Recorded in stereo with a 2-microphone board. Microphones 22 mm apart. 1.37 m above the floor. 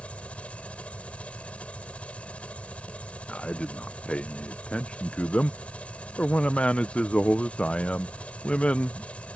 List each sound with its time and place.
0.0 s an engine running: 70° left (ahead or behind)
3.3 s a man speaking: 65° left (ahead or behind)